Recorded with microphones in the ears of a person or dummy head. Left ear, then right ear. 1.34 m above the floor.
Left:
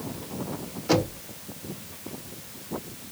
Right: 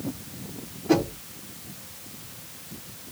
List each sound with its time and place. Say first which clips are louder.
0.9 s knocking: right 1 dB; 45° left (ahead or behind), 2 m